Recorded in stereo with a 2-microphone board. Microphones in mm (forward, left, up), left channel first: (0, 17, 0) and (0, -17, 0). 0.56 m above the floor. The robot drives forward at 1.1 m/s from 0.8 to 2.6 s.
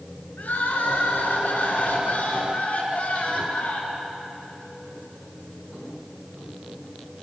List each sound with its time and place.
0.4 s crying: 65° left (ahead or behind), 5 m; by 4.1 s 45° left (ahead or behind), 6 m